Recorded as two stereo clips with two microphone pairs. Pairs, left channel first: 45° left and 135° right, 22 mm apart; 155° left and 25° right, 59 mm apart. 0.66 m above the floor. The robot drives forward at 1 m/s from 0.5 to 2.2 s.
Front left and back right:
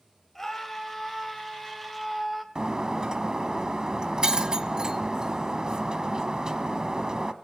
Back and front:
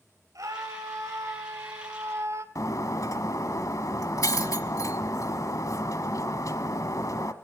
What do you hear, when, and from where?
0.3 s a scream: 35° right, 4 m; by 2.5 s 55° right, 2.5 m
2.5 s breaking glass: 170° left, 1.3 m